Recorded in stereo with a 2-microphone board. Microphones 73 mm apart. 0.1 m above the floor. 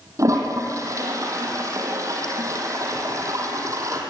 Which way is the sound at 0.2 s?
45° right (ahead or behind).